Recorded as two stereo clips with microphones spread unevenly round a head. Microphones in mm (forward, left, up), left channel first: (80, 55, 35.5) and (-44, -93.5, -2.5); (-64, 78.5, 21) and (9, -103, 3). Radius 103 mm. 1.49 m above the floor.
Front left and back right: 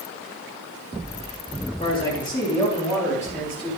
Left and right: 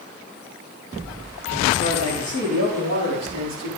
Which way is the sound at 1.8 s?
15° right.